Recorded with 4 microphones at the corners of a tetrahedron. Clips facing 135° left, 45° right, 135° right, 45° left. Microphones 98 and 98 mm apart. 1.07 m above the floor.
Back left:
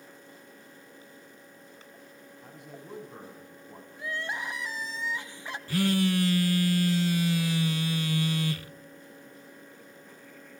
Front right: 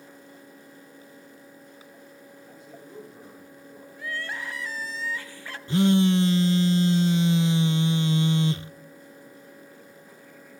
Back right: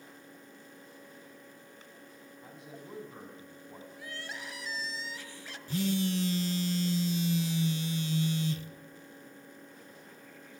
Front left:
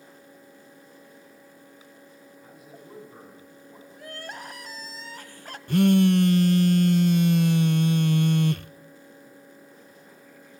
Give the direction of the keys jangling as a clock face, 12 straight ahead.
No keys jangling in this recording.